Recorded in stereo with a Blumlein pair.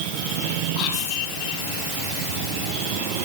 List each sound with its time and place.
0.8 s whispering: 40° left, 3.5 m